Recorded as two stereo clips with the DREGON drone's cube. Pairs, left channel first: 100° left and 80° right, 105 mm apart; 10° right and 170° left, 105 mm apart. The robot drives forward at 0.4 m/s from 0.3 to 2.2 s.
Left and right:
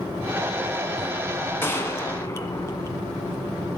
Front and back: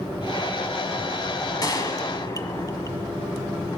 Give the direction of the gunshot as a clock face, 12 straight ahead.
11 o'clock.